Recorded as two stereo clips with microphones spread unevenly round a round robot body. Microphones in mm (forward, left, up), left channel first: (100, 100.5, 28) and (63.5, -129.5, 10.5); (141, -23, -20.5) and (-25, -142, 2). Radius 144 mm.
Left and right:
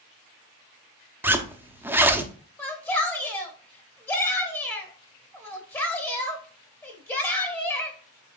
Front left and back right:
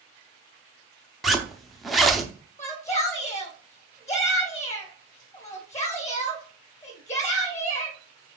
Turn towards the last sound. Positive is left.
turn(degrees=10)